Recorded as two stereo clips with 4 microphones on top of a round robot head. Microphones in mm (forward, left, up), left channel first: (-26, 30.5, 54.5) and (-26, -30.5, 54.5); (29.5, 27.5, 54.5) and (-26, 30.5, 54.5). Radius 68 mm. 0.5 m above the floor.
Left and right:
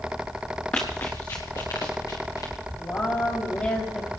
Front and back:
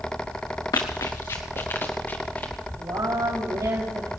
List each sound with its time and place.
0.7 s running footsteps: 15° left, 2.5 m; by 2.5 s 60° left, 4 m
2.8 s a woman speaking: 150° left, 3.5 m